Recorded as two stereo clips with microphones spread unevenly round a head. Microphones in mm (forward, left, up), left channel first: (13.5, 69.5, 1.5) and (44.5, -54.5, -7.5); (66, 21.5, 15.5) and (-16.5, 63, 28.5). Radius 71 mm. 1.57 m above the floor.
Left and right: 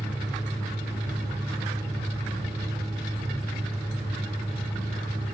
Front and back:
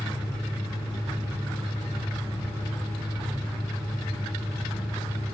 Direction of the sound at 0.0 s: 75° right.